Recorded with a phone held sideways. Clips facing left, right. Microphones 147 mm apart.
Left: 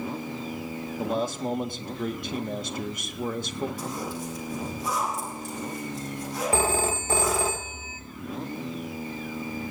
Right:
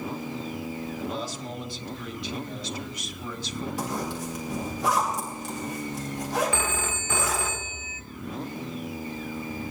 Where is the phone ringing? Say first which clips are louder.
Left 5 dB; 35° left (ahead or behind), 0.8 m.